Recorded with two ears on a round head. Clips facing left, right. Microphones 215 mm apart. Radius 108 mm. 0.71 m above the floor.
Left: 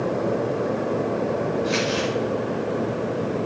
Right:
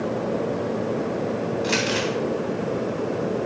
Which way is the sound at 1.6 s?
80° right.